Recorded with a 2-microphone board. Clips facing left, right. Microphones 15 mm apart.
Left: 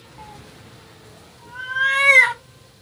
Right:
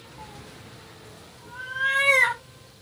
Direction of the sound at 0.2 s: 25° left (ahead or behind).